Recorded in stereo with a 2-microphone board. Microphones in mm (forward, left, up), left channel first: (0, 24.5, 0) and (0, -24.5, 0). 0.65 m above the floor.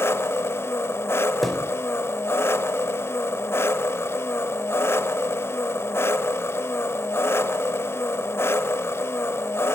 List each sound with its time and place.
0.0 s an engine running: 60° left (ahead or behind), 1.0 m
1.4 s a thud: centre (ahead or behind), 0.9 m